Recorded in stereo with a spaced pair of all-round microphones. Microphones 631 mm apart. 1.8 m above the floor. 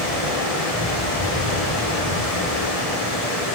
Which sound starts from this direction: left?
Running water, at 0.0 s.